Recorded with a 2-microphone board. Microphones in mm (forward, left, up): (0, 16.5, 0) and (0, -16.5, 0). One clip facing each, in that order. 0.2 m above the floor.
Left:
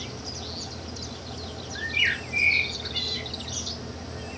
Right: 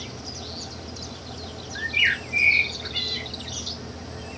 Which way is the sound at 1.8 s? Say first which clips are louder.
Right 3 dB; 15° right (ahead or behind).